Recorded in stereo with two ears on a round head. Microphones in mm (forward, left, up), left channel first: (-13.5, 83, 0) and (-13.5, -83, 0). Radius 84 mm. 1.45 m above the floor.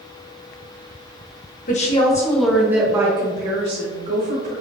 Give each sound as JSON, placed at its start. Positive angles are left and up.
{"t": 1.7, "sound": "a woman speaking", "side_deg": 40, "distance_m": 1.4}